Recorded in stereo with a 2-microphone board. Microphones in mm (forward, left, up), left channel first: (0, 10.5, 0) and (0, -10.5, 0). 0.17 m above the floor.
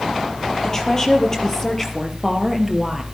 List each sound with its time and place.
0.6 s a woman speaking: 25° left (ahead or behind), 4 m; by 3.0 s 10° right (ahead or behind), 3 m